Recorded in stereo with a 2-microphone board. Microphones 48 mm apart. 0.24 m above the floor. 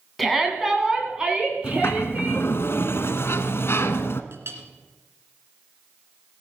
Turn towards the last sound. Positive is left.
turn(degrees=-55)  # may be behind; listen again after turning